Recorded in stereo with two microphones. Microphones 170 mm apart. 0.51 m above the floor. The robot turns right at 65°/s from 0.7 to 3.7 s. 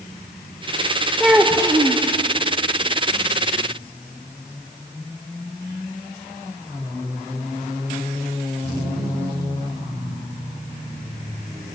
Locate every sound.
1.2 s a child speaking: straight behind, 0.5 m; by 2.0 s 125° right, 0.5 m